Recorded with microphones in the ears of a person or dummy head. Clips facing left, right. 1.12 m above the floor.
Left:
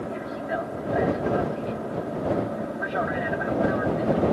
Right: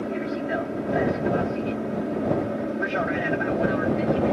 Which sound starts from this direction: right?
An aircraft, at 0.0 s.